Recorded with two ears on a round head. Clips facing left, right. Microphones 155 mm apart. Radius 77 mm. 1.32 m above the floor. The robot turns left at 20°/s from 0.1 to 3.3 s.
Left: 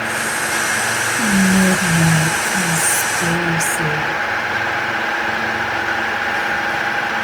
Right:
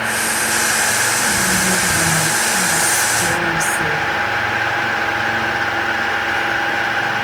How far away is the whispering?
About 0.5 m.